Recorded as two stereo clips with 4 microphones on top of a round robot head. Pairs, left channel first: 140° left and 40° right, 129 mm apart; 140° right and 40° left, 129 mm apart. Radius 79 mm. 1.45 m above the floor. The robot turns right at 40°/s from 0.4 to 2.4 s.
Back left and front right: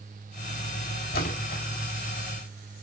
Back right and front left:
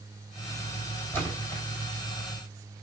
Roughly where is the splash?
Behind left.